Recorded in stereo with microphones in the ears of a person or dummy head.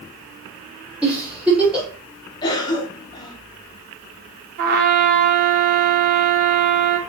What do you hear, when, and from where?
1.0 s a giggle: 10° right (ahead or behind), 5 m
2.4 s a cough: 25° left (ahead or behind), 2 m
4.6 s a trumpet: 50° right (ahead or behind), 1.3 m